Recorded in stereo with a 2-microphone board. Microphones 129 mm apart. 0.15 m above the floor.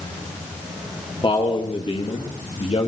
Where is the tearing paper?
No tearing paper in this recording.